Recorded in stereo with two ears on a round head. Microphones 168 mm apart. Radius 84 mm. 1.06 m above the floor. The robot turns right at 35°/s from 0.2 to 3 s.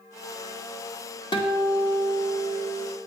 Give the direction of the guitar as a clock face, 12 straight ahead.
7 o'clock.